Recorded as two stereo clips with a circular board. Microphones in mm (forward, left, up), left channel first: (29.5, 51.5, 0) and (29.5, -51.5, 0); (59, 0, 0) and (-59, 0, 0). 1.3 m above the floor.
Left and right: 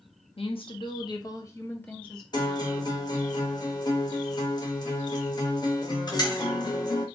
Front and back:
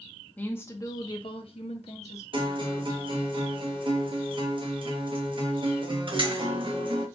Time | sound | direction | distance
0.4 | a woman speaking | 75° left | 0.8 m
2.3 | a guitar | 135° left | 0.8 m